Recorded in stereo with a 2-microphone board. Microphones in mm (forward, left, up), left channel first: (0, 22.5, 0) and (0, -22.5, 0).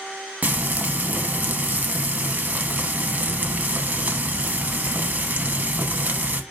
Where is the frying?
40° right (ahead or behind), 0.7 m.